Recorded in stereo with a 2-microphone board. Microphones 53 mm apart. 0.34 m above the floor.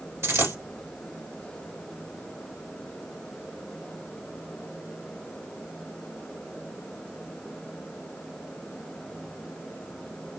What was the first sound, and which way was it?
A dropped coin, 65° right (ahead or behind).